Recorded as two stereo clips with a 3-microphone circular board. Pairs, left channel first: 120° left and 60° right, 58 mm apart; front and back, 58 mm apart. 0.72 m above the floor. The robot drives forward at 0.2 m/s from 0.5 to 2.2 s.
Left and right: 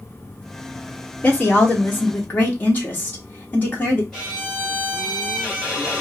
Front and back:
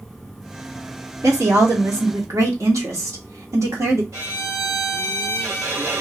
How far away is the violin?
About 2 m.